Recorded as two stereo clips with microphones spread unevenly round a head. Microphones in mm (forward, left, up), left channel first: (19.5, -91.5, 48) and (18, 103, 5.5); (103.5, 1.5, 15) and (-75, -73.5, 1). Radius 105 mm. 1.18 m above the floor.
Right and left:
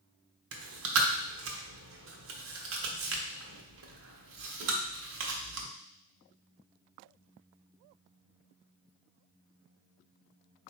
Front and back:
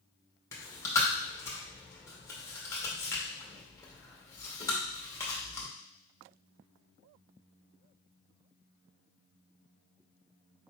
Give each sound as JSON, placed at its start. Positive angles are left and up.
{"t": 0.5, "sound": "chewing", "azimuth_deg": 100, "distance_m": 0.8}